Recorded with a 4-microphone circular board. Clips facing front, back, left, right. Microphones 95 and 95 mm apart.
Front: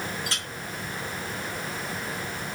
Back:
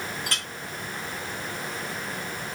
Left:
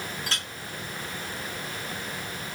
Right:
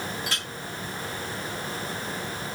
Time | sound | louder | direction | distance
0.3 | a clink | back 1 dB, right 1 dB | 140° left | 2.5 m